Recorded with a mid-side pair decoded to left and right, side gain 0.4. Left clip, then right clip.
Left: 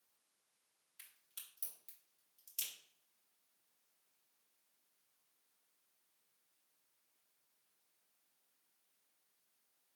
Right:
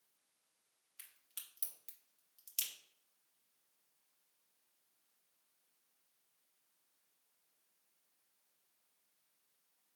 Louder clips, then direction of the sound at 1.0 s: Right 2 dB; 65° right.